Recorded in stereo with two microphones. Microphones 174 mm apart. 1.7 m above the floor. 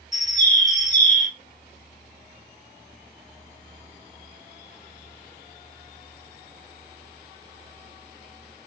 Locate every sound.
0.1 s a bird: 40° left (ahead or behind), 0.7 m